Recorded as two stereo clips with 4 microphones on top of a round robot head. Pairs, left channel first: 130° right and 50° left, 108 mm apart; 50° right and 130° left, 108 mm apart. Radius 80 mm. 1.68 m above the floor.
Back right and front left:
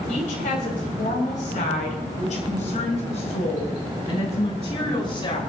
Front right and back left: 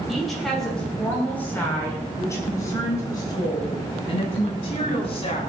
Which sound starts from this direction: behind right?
A woman speaking, at 0.1 s.